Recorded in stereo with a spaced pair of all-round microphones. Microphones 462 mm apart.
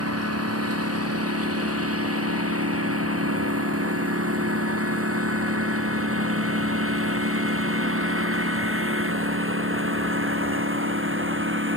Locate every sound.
0.0 s a lawn mower: 30° right (ahead or behind); by 11.8 s 25° right (ahead or behind)